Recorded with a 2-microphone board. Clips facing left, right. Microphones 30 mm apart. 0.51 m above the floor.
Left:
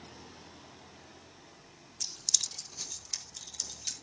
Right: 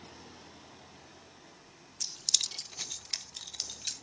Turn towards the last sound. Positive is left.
turn(degrees=-30)  # may be behind; listen again after turning